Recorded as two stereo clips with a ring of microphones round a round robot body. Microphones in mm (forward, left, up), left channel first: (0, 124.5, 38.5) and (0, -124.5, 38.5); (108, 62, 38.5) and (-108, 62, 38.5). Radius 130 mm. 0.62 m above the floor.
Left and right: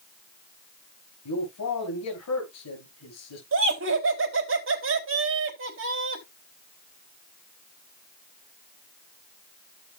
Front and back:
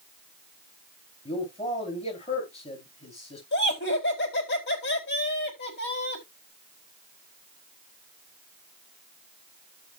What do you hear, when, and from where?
1.2 s a man speaking: 60° left, 7.5 m
3.5 s laughter: 50° right, 4 m